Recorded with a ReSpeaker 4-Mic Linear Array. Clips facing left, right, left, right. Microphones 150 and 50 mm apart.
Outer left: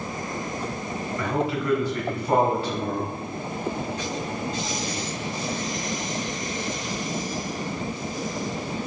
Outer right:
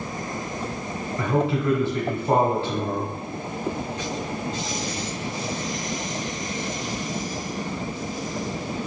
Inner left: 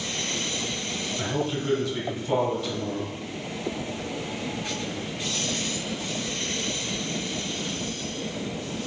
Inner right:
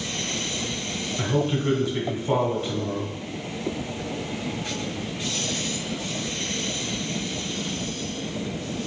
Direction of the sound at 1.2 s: 25° right (ahead or behind).